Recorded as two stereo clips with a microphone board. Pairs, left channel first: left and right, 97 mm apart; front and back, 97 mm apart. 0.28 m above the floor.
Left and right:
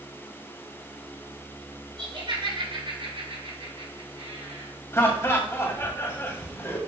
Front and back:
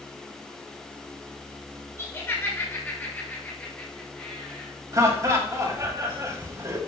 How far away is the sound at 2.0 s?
About 3.5 m.